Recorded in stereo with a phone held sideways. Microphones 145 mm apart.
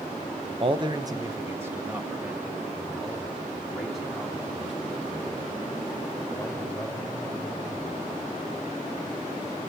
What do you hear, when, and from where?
0.6 s a man speaking: 40° right (ahead or behind), 0.8 m; by 7.9 s 5° left (ahead or behind), 5.5 m